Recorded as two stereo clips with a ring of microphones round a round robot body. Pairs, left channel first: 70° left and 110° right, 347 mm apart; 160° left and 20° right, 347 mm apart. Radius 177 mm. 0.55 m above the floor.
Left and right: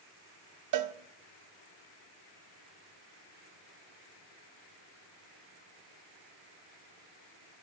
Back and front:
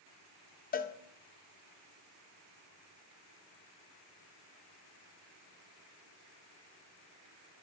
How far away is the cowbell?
About 0.5 m.